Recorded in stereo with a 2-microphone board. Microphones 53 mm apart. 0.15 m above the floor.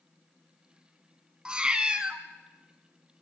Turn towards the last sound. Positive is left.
turn(degrees=-20)  # may be behind; listen again after turning